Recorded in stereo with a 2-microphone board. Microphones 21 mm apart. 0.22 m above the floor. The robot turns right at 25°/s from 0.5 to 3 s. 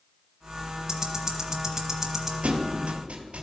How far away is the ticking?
About 1.0 m.